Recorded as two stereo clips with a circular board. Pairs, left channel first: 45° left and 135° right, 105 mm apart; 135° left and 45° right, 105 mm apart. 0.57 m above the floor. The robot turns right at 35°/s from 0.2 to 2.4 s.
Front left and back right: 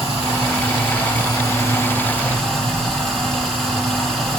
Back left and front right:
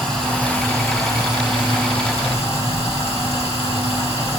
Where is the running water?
50° left, 1.5 m; by 4.4 s 130° left, 1.5 m.